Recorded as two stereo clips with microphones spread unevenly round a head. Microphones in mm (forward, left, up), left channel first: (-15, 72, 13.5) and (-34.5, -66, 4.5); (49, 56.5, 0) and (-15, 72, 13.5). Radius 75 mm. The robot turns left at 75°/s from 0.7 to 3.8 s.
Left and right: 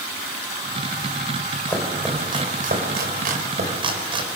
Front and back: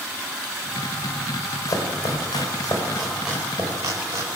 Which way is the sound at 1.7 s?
10° left.